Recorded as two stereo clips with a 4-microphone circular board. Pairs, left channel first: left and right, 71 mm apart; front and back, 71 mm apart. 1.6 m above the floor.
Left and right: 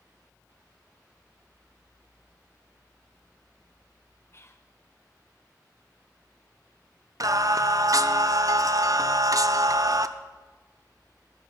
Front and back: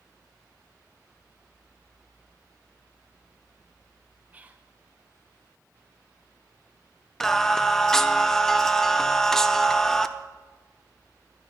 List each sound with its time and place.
4.3 s whispering: 120° left, 0.5 m
7.2 s singing: 80° right, 0.5 m